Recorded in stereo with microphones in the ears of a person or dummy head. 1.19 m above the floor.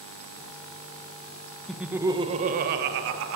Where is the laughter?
Centre (ahead or behind), 1.4 m; by 3.4 s 75° right (ahead or behind), 1.8 m.